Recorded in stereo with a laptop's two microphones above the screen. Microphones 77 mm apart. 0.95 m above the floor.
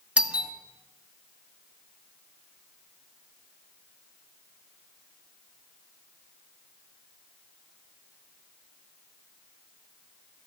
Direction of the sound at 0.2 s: 15° right (ahead or behind).